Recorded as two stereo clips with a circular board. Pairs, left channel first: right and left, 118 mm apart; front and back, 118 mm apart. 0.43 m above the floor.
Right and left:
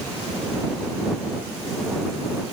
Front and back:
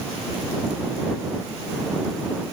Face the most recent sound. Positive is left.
No sound to turn to.